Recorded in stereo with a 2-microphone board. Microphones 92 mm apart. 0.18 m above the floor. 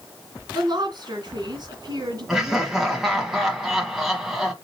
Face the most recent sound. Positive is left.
turn(degrees=-5)  # may be behind; listen again after turning